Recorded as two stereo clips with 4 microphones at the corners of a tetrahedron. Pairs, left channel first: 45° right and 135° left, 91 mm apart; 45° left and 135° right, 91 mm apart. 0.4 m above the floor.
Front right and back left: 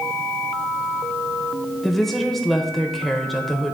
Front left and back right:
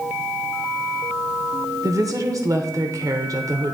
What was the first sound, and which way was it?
A woman speaking, 130° right.